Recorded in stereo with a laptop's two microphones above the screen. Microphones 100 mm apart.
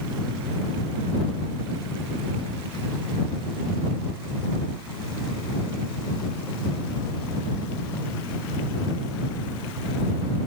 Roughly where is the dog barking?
No dog barking in this recording.